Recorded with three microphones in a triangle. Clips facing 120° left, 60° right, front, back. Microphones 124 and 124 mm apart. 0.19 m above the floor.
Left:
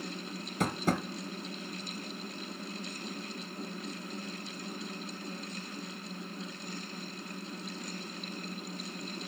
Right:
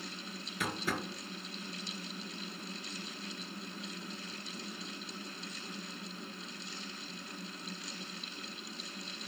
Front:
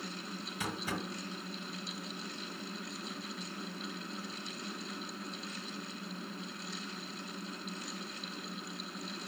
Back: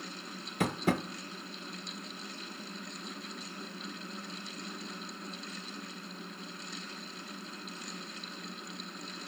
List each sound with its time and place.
0.6 s tapping: 160° left, 0.8 m